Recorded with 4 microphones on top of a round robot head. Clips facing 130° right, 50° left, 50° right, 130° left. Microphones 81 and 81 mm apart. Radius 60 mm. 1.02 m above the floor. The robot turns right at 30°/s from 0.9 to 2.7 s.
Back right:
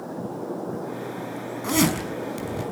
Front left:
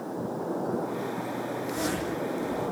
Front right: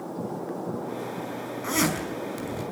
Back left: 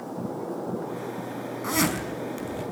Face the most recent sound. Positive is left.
turn(degrees=-120)